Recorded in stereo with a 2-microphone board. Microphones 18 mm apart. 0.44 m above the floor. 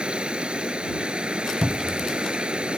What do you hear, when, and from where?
0.0 s running water: 80° right
1.6 s a cupboard door: 30° right (ahead or behind)